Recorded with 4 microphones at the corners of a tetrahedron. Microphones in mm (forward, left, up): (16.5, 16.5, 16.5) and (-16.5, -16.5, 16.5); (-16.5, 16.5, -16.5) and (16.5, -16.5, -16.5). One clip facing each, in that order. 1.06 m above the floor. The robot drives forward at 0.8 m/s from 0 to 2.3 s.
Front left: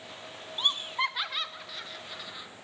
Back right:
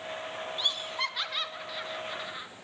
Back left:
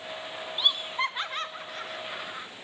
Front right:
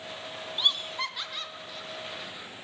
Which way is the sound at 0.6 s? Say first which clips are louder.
Front left 4 dB, back left 2 dB; 55° left.